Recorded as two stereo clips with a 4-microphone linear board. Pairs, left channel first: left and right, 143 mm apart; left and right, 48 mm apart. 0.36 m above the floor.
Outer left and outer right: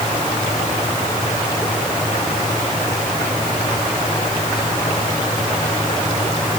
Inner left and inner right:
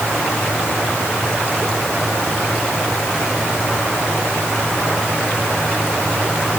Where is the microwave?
I don't hear a microwave.